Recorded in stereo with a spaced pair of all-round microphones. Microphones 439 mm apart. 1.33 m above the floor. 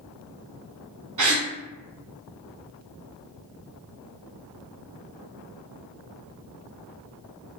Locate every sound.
1.2 s a gasp: 45° right (ahead or behind), 0.6 m